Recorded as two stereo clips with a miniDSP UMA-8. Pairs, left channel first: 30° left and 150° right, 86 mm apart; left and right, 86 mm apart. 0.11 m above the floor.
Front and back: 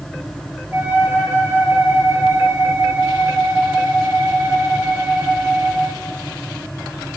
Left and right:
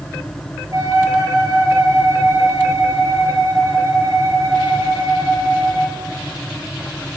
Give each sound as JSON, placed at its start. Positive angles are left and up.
{"t": 0.7, "sound": "a flute", "azimuth_deg": -100, "distance_m": 1.3}